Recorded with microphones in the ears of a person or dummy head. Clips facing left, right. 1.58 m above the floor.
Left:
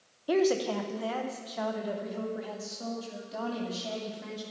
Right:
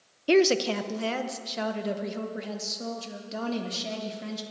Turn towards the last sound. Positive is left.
turn(degrees=-40)  # may be behind; listen again after turning